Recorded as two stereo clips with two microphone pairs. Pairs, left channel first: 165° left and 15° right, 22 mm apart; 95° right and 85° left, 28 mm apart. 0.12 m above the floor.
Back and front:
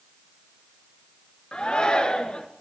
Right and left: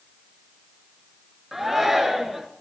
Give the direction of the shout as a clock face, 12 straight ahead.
6 o'clock.